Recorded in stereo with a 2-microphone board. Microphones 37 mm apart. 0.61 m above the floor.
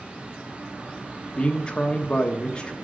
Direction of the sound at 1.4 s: 25° left (ahead or behind).